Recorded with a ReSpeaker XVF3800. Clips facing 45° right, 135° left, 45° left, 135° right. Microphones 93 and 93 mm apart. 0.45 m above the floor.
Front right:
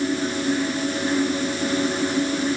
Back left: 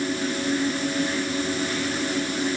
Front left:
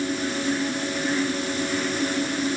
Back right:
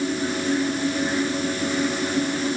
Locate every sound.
Only background noise.